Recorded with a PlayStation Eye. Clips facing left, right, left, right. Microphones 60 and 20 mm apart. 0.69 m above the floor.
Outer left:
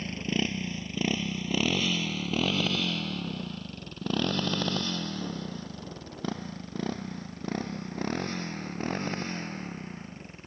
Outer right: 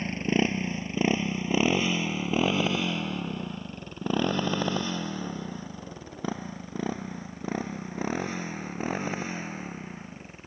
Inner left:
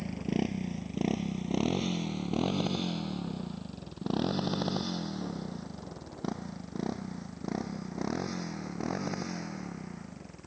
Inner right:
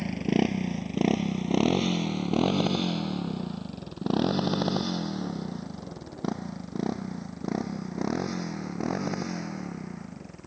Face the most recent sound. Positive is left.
turn(degrees=-10)  # may be behind; listen again after turning